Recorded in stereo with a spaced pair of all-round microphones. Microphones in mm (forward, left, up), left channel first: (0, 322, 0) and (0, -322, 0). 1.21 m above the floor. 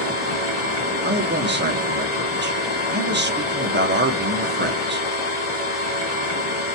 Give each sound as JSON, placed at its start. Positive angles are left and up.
{"t": 0.0, "sound": "a machine running", "side_deg": 60, "distance_m": 1.5}
{"t": 1.0, "sound": "a man speaking", "side_deg": -20, "distance_m": 0.6}